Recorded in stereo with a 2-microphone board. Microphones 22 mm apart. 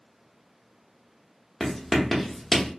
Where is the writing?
5° left (ahead or behind), 0.7 m.